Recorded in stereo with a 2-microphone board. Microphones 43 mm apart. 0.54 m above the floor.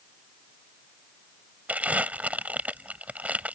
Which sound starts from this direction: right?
Crumpling, at 1.7 s.